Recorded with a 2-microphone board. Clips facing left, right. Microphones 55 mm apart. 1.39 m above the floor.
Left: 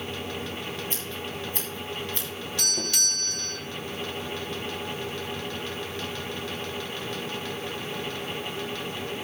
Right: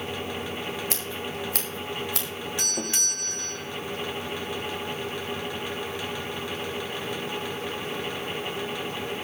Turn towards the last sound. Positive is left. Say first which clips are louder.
# left 3 dB
turn(degrees=-25)  # may be behind; listen again after turning